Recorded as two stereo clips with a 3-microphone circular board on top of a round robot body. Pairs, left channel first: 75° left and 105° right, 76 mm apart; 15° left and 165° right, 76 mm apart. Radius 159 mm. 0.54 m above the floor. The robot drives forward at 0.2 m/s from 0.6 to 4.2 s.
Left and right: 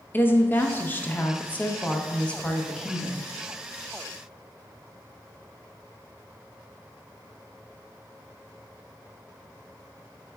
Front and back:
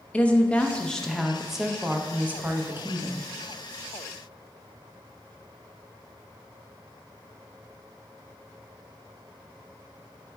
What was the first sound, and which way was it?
A woman speaking, 70° left.